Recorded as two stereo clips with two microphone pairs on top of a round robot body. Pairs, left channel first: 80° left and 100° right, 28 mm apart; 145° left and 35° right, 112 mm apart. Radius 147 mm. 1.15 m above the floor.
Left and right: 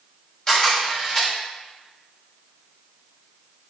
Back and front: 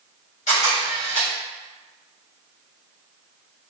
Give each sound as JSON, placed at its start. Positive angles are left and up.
{"t": 0.5, "sound": "a camera shutter", "azimuth_deg": 140, "distance_m": 1.4}